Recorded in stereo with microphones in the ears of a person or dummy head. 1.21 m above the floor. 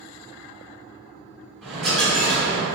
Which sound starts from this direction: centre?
A dropped coin, at 1.6 s.